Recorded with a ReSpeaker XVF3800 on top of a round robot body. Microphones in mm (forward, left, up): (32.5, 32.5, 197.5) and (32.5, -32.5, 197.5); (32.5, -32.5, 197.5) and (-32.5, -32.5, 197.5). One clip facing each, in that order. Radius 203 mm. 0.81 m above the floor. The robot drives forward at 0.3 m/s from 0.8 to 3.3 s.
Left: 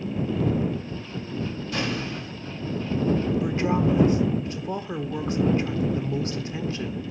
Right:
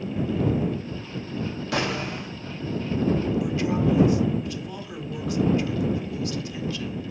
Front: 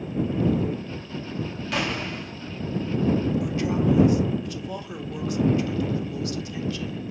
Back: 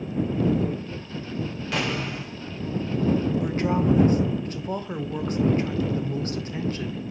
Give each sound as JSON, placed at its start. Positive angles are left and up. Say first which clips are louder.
{"t": 1.7, "sound": "an explosion", "louder": "right 3 dB, even", "azimuth_deg": -90, "distance_m": 1.2}
{"t": 3.4, "sound": "a woman speaking", "louder": "left 1 dB, back 1 dB", "azimuth_deg": 140, "distance_m": 0.8}